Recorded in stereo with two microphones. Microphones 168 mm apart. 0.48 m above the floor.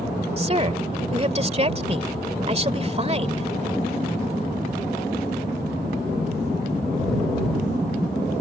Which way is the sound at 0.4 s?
40° right (ahead or behind).